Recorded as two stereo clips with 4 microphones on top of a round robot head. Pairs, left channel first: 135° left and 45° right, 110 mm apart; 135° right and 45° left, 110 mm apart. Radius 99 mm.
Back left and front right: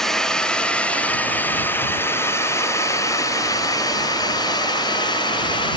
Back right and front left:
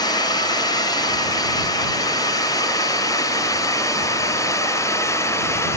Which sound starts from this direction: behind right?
A drone, at 0.0 s.